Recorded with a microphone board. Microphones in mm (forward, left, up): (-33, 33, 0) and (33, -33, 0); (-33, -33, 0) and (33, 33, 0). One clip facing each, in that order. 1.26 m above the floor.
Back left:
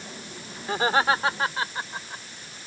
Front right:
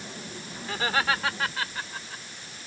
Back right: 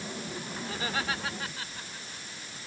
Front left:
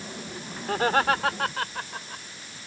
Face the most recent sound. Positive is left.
turn(degrees=70)